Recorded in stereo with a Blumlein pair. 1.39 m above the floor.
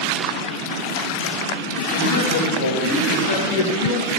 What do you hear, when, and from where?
1.9 s a man speaking: 60° left, 2.5 m; by 4.1 s 45° left, 1.3 m